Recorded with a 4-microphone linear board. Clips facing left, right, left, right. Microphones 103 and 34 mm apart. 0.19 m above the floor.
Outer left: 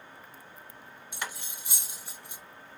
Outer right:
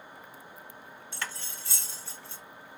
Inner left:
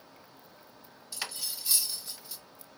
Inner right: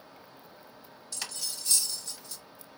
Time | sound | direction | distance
1.1 | cutlery clinking | 15° left (ahead or behind) | 0.5 m